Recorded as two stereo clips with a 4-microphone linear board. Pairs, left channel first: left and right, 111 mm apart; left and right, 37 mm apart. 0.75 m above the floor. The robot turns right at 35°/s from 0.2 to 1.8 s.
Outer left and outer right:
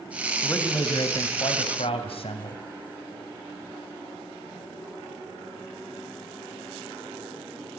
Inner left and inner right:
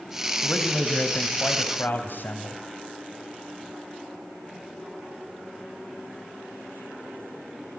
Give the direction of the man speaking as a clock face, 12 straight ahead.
11 o'clock.